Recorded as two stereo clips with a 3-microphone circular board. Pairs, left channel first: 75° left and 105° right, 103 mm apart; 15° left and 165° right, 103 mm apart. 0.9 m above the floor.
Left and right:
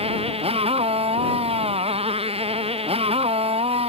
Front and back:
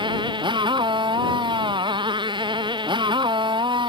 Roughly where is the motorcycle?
Behind right.